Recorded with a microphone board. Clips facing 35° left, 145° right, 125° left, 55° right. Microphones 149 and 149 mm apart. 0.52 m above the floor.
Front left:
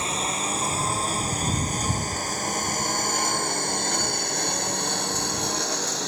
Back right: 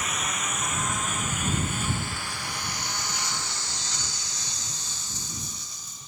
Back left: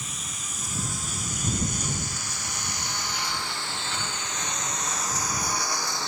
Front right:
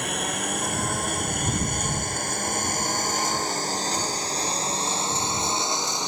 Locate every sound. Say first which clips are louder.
0.0 s a lawn mower: front left 4 dB, front right 13 dB; 25° right; by 6.1 s 15° left